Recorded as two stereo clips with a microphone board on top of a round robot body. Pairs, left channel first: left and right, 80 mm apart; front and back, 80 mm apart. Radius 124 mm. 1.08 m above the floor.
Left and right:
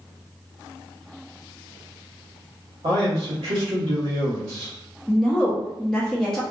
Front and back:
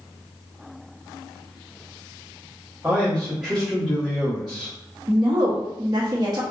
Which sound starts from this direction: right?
A man speaking, at 2.8 s.